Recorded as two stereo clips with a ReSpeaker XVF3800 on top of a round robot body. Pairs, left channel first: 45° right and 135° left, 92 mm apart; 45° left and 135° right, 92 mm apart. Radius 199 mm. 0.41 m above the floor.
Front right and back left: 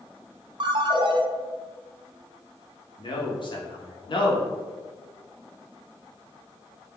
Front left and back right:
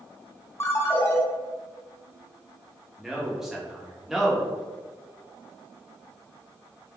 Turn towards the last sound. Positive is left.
turn(degrees=-50)